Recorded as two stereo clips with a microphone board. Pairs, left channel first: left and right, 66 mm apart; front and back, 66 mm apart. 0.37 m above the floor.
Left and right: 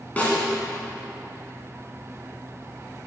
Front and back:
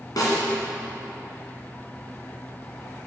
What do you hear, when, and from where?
0.2 s a snare drum: 20° left, 2 m